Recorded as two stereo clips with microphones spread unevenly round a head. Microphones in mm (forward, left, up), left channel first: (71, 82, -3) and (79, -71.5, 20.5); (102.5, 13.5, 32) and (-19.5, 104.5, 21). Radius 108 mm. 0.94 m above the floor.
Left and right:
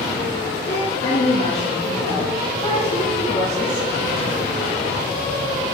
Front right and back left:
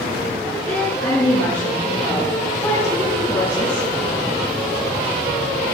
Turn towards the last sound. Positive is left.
turn(degrees=40)